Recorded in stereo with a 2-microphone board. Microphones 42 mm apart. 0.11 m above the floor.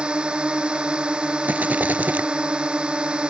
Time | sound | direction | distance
0.0 | a drone | 25° right (ahead or behind) | ?
1.4 | a rattle | 45° right (ahead or behind) | ?